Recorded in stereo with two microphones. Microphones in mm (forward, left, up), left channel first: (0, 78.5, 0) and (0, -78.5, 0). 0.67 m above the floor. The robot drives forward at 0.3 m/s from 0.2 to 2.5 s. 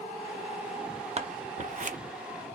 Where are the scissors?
45° right (ahead or behind), 0.6 m; by 2.0 s 55° right (ahead or behind), 0.5 m.